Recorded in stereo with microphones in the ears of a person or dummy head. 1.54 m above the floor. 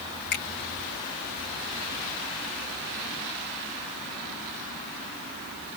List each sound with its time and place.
0.3 s a finger snap: 50° left (ahead or behind), 1.9 m